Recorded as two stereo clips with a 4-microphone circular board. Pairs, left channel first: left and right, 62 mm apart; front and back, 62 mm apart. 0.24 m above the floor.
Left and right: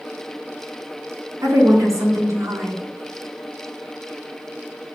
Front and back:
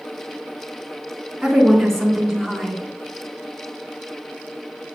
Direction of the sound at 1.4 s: 85° right.